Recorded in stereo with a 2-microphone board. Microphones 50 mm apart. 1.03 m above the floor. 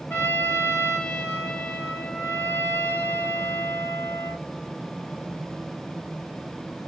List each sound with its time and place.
0.1 s a trumpet: 65° left (ahead or behind), 2 m